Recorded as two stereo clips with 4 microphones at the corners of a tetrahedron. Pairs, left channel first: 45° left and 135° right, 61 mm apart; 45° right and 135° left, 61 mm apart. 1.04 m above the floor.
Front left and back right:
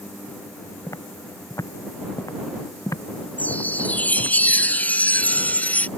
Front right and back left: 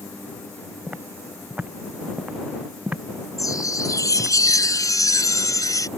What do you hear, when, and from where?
0.9 s footsteps: 70° left
3.4 s a chime: 20° right